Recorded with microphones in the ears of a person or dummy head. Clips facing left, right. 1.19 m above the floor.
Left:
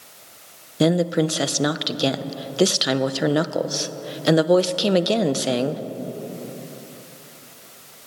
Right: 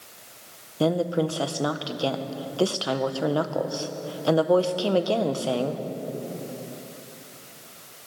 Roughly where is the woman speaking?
Left.